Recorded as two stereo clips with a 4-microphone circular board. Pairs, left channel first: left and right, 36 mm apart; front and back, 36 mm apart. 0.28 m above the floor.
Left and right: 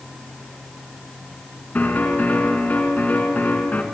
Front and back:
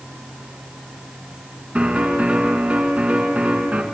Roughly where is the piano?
Behind left.